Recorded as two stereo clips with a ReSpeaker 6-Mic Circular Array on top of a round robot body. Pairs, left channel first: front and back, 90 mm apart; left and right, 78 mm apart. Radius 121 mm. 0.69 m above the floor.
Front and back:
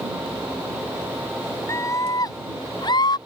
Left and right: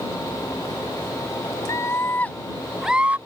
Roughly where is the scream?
Ahead left.